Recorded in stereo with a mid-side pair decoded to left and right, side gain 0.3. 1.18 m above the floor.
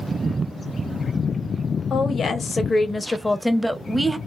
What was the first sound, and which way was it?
A woman speaking, 70° left.